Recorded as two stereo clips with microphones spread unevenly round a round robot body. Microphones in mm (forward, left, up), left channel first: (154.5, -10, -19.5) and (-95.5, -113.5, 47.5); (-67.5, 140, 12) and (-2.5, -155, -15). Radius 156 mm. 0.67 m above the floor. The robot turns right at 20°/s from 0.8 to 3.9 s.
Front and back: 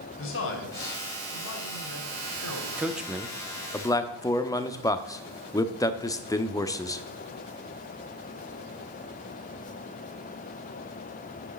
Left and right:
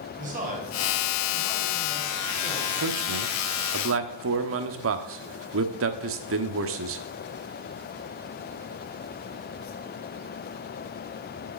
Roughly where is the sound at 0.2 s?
Ahead.